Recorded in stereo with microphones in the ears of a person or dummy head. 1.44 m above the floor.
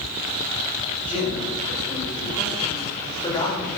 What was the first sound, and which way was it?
A man speaking, 35° left (ahead or behind).